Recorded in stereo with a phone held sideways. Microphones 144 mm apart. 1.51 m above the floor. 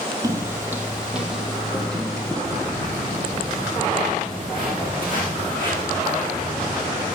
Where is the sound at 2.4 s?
40° right (ahead or behind), 7.5 m; by 7.2 s 25° right (ahead or behind), 5.5 m.